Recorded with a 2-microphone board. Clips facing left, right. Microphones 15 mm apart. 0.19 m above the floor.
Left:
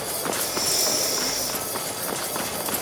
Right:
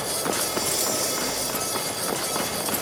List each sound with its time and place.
0.3 s breathing: 55° left (ahead or behind), 9 m